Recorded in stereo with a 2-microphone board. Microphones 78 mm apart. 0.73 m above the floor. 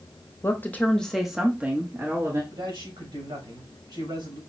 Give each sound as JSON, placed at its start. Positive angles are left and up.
{"t": 0.4, "sound": "a woman speaking", "side_deg": 35, "distance_m": 1.0}
{"t": 2.5, "sound": "a man speaking", "side_deg": -70, "distance_m": 3.5}